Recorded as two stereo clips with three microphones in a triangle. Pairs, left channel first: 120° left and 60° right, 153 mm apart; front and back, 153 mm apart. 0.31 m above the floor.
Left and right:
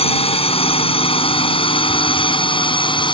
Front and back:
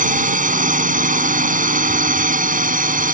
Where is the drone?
165° left; by 3.1 s 175° left.